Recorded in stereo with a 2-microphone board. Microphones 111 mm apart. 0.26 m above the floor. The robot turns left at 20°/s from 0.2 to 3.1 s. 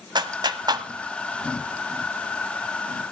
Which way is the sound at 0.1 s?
45° right (ahead or behind).